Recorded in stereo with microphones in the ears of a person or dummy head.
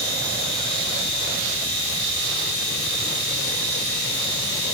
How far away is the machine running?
About 2.5 m.